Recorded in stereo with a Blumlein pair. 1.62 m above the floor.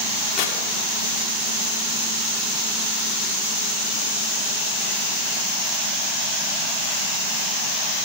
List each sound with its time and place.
0.4 s tearing paper: 40° left, 1.8 m